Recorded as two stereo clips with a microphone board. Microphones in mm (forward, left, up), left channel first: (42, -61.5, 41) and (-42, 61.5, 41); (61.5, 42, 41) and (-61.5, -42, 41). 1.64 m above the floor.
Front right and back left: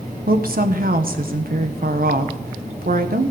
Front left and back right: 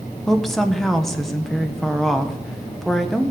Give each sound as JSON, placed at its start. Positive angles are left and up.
{"t": 0.3, "sound": "a woman speaking", "azimuth_deg": 125, "distance_m": 1.2}